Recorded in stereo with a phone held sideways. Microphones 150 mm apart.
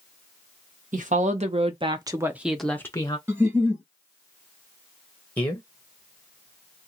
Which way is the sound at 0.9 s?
60° right (ahead or behind).